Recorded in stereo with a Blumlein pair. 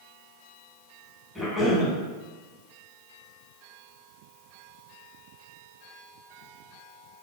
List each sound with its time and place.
1.4 s a cough: straight ahead, 1.2 m